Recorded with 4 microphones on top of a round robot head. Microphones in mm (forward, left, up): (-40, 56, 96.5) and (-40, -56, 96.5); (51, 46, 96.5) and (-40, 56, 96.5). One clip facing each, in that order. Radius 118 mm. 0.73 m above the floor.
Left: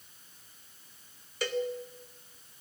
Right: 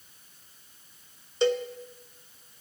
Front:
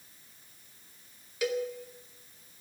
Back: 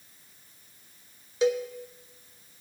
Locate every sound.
1.4 s a cowbell: 140° right, 1.0 m